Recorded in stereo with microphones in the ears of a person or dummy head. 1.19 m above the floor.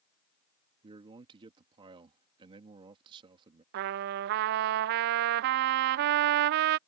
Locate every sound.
0.8 s a man speaking: 25° right (ahead or behind)
3.7 s a trumpet: 55° right (ahead or behind)